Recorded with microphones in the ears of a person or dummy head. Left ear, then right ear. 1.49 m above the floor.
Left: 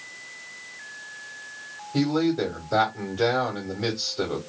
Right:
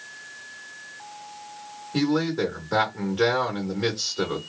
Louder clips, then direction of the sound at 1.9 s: Even; 35° right (ahead or behind).